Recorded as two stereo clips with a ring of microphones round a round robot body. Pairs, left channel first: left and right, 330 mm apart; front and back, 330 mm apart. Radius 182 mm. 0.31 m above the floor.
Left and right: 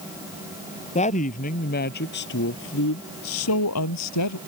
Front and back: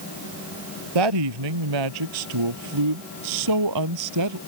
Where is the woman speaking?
165° left; by 4.4 s 135° left.